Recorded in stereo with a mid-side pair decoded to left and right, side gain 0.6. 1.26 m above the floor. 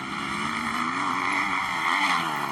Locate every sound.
0.0 s a motorcycle: straight ahead